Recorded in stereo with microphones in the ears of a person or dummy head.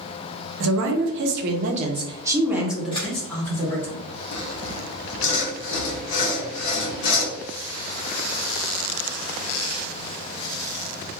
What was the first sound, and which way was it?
A woman speaking, 75° right (ahead or behind).